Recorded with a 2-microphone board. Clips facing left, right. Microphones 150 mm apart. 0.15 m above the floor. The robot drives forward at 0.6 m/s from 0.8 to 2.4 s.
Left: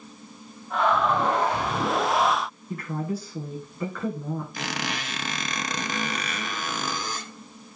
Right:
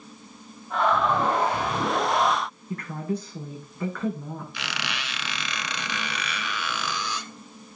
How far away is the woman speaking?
About 7.5 m.